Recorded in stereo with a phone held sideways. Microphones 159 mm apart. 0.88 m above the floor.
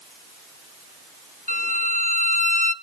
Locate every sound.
1.5 s a violin: 55° left (ahead or behind), 1.1 m